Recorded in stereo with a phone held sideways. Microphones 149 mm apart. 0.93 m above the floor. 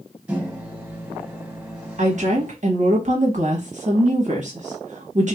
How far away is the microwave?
About 0.9 m.